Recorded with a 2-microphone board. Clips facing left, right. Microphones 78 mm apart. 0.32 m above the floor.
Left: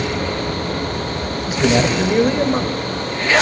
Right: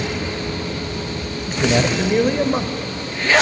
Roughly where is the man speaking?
Centre.